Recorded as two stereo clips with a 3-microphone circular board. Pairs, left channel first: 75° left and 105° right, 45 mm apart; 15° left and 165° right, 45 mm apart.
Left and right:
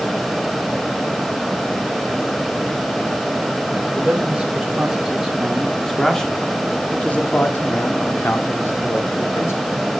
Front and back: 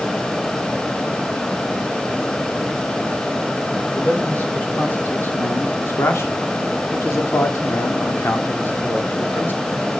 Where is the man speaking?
40° right, 3 m; by 9.8 s 60° left, 3 m.